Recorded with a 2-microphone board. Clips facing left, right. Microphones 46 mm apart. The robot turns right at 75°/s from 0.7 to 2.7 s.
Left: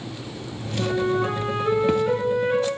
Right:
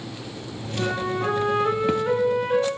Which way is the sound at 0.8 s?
115° right.